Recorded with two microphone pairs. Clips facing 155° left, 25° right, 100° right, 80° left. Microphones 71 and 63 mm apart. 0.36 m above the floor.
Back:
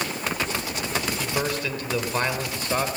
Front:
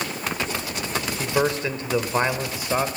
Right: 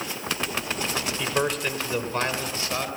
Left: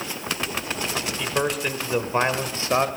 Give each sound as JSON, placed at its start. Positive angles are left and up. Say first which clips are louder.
{"t": 1.2, "sound": "a man speaking", "louder": "front 4 dB, left 1 dB", "azimuth_deg": -20, "distance_m": 1.7}